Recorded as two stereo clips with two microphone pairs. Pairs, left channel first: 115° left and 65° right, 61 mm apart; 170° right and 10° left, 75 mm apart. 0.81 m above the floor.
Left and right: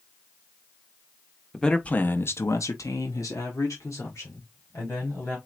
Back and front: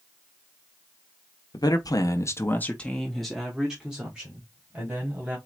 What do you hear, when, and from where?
1.5 s a man speaking: 170° right, 0.9 m; by 5.4 s 75° left, 2.5 m